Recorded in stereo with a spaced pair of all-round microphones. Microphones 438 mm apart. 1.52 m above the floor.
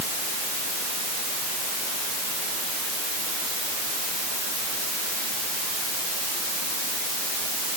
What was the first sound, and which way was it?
Only background noise.